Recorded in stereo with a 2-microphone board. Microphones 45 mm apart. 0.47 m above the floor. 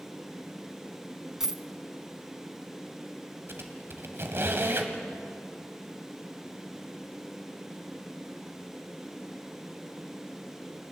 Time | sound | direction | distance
1.4 | a dropped coin | 10° right (ahead or behind) | 0.8 m
3.5 | a squeak | 60° right (ahead or behind) | 1.8 m